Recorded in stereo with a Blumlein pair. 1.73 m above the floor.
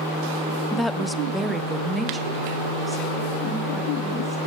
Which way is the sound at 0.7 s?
5° left.